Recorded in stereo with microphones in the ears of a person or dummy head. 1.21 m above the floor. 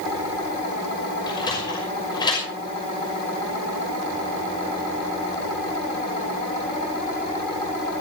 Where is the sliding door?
25° left (ahead or behind), 6 m.